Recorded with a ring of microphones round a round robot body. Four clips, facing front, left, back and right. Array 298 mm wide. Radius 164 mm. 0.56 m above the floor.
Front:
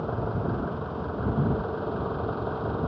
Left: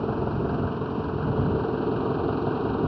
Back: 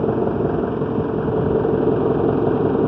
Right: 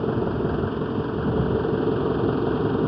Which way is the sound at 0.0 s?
170° right.